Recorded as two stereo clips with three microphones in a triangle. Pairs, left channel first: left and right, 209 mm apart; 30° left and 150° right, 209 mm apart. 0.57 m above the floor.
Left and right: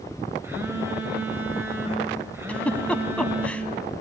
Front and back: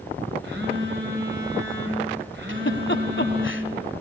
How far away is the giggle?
About 1.2 m.